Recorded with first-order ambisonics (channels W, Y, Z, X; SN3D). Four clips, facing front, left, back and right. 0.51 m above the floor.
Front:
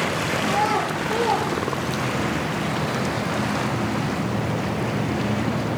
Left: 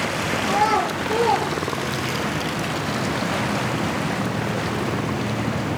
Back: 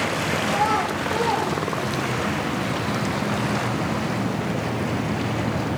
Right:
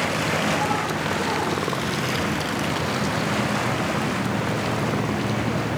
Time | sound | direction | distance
0.4 | a child speaking | 75° left | 8 m